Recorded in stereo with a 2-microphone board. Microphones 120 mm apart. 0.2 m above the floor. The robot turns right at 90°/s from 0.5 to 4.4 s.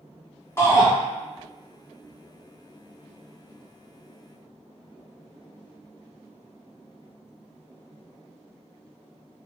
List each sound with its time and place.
0.6 s a shout: 40° left, 1.2 m; by 0.9 s 70° left, 1.2 m